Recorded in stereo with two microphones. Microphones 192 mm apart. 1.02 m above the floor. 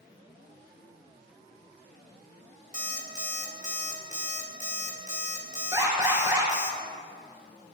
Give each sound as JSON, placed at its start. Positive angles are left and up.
{"t": 2.7, "sound": "an alarm clock", "side_deg": -40, "distance_m": 1.4}
{"t": 5.7, "sound": "an alarm", "side_deg": -20, "distance_m": 4.0}